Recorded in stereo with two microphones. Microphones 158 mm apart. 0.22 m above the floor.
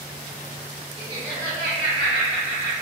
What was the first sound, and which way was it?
Laughter, 20° left (ahead or behind).